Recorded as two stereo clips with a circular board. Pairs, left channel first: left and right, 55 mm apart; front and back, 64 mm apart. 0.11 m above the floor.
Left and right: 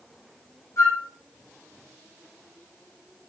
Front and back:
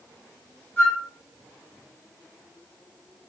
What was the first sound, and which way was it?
A flute, 60° left.